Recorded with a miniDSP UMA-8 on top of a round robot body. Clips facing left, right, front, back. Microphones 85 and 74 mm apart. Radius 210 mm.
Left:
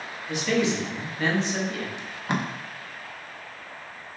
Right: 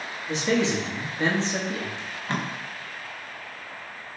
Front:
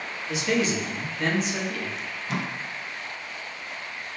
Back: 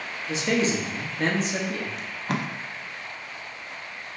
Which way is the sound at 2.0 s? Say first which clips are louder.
Left 1 dB, back 1 dB; 160° left.